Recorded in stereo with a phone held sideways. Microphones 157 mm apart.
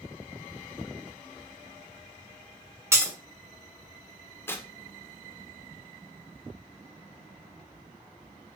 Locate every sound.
2.9 s breaking glass: 15° right (ahead or behind), 0.8 m
4.5 s tearing paper: 15° left (ahead or behind), 0.5 m